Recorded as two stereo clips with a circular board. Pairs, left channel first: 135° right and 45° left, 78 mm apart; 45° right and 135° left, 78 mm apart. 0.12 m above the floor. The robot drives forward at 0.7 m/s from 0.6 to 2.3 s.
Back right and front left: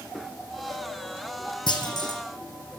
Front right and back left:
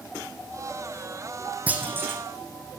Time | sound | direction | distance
1.7 | a clunk | 155° right | 0.8 m